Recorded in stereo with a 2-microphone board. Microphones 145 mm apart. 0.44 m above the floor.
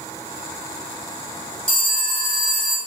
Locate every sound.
1.7 s a phone ringing: 40° left (ahead or behind), 2 m